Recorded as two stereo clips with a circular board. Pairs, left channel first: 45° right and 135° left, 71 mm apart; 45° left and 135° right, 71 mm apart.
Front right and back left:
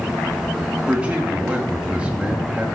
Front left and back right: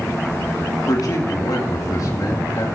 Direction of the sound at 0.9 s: 65° left.